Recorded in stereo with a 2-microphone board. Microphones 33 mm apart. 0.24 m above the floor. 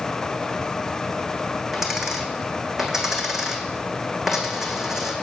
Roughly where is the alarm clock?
No alarm clock in this recording.